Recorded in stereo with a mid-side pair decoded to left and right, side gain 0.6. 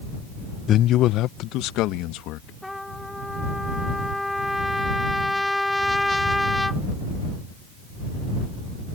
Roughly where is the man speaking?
Ahead left.